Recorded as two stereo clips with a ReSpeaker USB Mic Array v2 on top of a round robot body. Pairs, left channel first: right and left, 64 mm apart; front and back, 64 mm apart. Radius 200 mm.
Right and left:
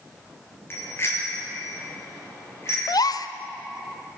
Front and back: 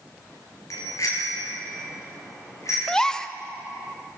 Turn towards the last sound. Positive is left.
turn(degrees=-80)